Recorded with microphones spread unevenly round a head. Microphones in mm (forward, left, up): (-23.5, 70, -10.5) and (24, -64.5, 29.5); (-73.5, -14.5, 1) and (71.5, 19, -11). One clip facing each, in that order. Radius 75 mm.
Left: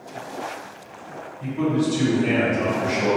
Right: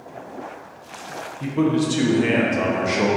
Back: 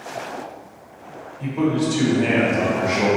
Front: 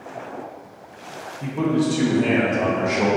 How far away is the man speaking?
About 1.0 m.